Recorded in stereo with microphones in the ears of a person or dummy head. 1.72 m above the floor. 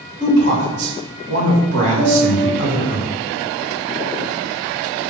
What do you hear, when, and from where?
0.2 s a woman speaking: 35° right (ahead or behind), 1.9 m
2.0 s a piano: centre (ahead or behind), 0.6 m